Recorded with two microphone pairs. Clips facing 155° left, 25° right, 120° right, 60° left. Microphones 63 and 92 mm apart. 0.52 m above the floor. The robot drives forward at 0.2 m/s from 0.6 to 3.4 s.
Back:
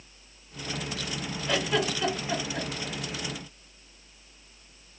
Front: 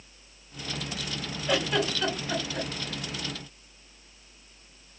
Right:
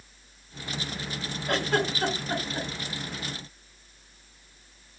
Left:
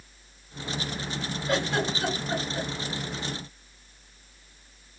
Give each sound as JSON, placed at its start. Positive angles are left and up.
{"t": 1.5, "sound": "a giggle", "azimuth_deg": -115, "distance_m": 1.8}